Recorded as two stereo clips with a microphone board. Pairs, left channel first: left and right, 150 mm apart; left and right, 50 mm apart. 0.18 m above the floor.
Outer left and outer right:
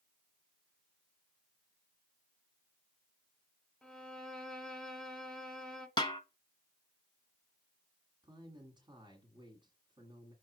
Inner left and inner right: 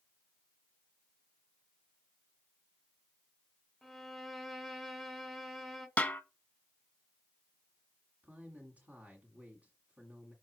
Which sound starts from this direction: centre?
A violin, at 3.8 s.